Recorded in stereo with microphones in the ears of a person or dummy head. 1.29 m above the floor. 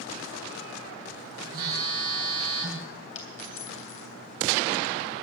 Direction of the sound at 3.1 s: 45° left (ahead or behind).